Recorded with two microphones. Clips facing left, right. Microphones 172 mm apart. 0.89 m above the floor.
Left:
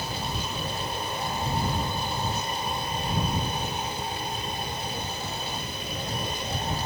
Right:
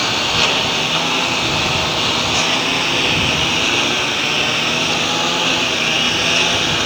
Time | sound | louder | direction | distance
0.0 | a lawn mower | right 12 dB | 85° right | ?